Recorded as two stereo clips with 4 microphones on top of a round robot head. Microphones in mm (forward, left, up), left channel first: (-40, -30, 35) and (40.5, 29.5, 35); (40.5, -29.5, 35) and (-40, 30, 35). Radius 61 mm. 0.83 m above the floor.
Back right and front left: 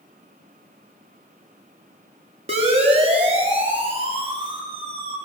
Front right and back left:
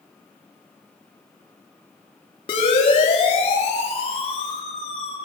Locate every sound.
2.5 s a siren: 5° left, 9 m; by 5.2 s 5° right, 10.5 m